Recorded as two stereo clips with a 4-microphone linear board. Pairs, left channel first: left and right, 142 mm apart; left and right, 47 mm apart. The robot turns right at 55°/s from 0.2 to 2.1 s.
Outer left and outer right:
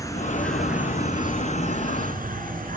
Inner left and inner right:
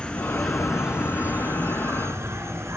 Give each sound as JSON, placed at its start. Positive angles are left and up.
{"t": 0.0, "sound": "an insect", "azimuth_deg": 160, "distance_m": 2.5}